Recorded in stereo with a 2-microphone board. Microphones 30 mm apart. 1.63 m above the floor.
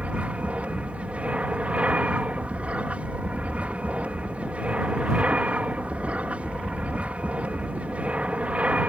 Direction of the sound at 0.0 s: 50° right (ahead or behind).